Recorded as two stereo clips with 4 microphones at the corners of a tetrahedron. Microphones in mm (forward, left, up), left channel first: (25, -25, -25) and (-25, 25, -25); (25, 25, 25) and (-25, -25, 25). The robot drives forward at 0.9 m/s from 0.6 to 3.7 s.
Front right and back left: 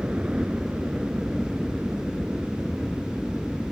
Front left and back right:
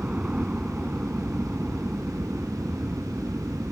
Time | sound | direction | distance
0.0 | a helicopter | straight behind | ?